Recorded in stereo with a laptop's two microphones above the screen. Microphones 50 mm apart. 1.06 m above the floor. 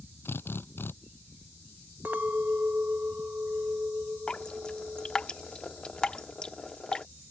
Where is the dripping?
15° left (ahead or behind).